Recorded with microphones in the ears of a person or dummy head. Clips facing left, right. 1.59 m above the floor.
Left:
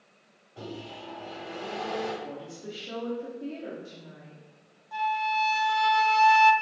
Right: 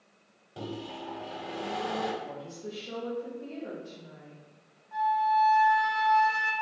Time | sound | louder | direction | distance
0.6 | a microwave | right 2 dB | 45° right (ahead or behind) | 0.8 m
2.2 | a woman speaking | left 1 dB | 20° left (ahead or behind) | 0.9 m
4.9 | a flute | right 3 dB | 45° left (ahead or behind) | 0.5 m